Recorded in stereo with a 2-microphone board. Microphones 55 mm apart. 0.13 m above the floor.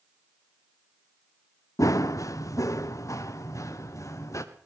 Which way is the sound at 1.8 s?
85° left.